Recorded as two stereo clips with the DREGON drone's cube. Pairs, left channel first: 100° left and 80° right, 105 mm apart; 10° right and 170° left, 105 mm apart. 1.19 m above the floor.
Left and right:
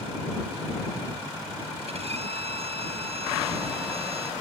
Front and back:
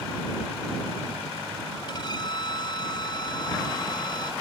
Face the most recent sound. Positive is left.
turn(degrees=-60)